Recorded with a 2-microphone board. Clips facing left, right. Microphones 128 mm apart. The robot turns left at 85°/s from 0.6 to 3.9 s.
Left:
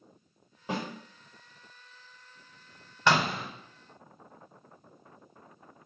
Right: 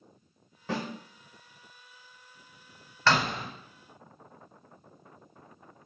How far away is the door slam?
About 0.7 m.